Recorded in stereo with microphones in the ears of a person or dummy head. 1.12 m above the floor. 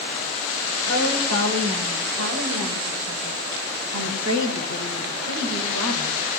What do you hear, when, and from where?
0.9 s a woman speaking: 75° right (ahead or behind), 5 m; by 6.2 s 70° right (ahead or behind), 5.5 m